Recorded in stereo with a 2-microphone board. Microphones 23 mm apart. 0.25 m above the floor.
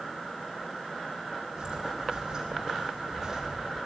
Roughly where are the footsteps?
Right.